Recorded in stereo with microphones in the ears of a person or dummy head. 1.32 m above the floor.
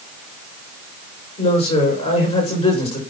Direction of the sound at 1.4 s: 30° left (ahead or behind).